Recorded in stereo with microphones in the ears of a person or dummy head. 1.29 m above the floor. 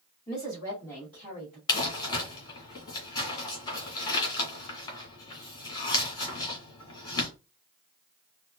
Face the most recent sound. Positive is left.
turn(degrees=25)  # may be behind; listen again after turning